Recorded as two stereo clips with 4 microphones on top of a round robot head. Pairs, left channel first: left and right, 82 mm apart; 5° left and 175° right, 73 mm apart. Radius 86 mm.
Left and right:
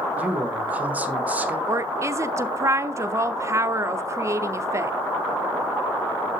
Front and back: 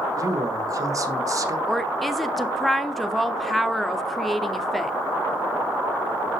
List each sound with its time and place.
0.2 s a man speaking: 155° right, 1.4 m
1.7 s a woman speaking: 85° right, 0.9 m